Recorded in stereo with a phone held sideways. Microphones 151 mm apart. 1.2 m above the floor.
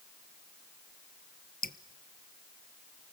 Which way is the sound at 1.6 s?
75° left (ahead or behind).